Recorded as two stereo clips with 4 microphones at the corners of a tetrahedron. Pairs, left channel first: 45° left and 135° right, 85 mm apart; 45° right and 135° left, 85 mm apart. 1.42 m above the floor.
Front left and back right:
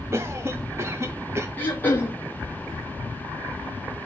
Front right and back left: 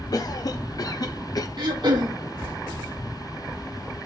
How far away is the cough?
About 0.8 m.